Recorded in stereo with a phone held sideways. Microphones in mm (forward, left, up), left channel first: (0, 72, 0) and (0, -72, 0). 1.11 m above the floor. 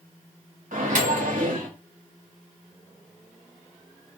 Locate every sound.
0.7 s a microwave: 80° right, 1.0 m